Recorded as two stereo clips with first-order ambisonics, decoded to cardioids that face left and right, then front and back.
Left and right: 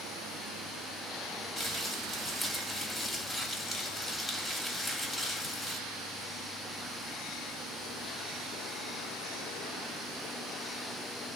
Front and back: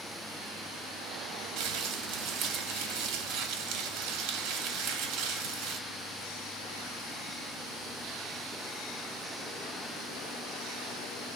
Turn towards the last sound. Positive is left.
turn(degrees=170)